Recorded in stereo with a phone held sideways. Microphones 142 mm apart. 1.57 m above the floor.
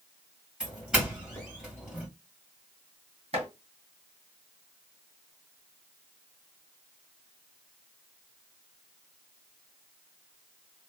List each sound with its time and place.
0.6 s a doorbell: 5° right (ahead or behind), 2 m
3.3 s chopping: 50° right (ahead or behind), 2.5 m